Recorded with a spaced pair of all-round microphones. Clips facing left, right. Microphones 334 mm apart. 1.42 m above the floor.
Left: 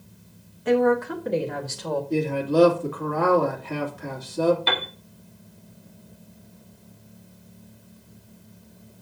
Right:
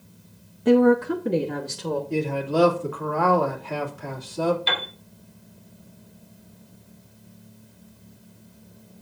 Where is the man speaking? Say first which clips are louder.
Left 4 dB; 25° left (ahead or behind), 2.5 m.